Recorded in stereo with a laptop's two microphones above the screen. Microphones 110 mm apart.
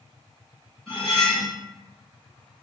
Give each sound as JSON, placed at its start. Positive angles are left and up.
{"t": 0.9, "sound": "cutlery clinking", "side_deg": 0, "distance_m": 1.5}